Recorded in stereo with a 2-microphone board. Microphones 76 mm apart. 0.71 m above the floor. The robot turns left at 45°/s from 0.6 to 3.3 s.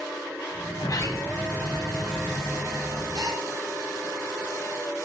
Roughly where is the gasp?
Right.